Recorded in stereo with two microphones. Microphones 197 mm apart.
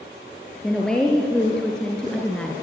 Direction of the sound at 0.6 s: 5° left (ahead or behind).